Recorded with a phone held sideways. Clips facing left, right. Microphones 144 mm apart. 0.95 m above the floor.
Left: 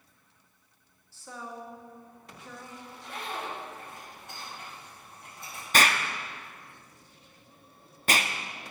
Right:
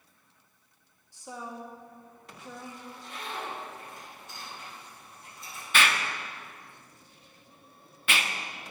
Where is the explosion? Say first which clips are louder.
Left 2 dB; 40° left (ahead or behind), 0.6 m.